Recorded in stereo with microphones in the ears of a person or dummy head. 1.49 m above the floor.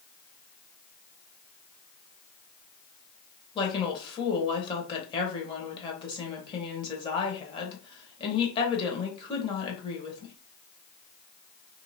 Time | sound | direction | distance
3.5 | a woman speaking | 25° left (ahead or behind) | 1.1 m